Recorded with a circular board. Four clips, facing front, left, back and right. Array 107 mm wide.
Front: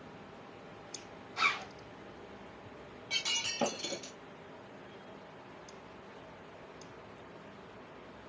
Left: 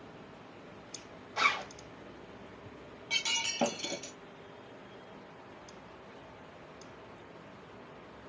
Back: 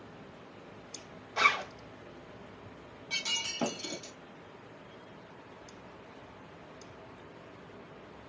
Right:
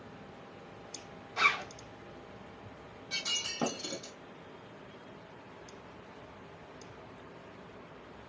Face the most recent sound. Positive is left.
turn(degrees=80)